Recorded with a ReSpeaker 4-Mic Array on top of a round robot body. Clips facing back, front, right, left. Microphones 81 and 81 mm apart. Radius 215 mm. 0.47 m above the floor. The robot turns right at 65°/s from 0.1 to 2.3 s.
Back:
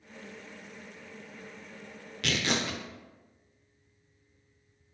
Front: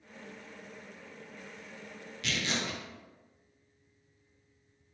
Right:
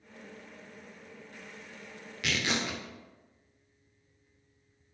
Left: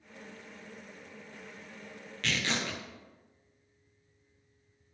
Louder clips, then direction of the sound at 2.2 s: Back 4 dB, right 1 dB; 170° right.